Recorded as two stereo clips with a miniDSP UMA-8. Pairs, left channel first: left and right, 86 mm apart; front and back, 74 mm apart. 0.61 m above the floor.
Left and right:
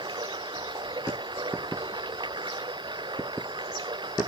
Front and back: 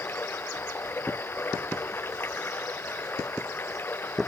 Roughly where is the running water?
Ahead right.